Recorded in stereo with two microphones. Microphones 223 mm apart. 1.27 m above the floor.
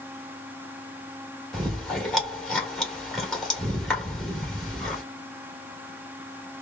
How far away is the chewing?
About 1.6 m.